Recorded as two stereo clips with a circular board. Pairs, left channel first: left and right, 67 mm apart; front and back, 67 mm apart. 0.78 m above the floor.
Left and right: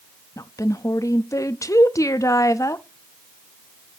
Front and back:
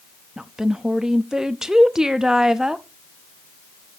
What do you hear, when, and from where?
0.4 s a woman speaking: 100° left, 0.6 m